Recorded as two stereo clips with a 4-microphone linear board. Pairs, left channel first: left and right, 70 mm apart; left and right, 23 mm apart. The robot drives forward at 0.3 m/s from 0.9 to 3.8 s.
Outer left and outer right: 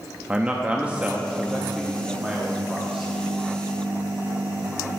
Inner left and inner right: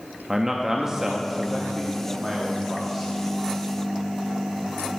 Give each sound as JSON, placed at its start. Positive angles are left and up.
{"t": 0.3, "sound": "a man speaking", "side_deg": -20, "distance_m": 0.6}